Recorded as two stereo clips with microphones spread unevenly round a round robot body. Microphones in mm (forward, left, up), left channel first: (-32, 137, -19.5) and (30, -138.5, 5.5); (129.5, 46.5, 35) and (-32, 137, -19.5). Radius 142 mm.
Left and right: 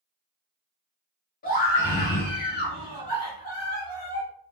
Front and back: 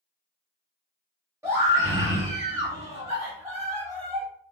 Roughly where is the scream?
Behind left.